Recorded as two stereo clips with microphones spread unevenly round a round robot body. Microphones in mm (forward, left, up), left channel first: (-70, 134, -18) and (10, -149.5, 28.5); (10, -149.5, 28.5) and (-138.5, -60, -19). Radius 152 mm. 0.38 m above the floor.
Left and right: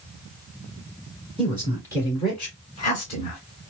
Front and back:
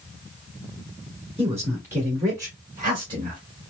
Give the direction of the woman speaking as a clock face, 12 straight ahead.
5 o'clock.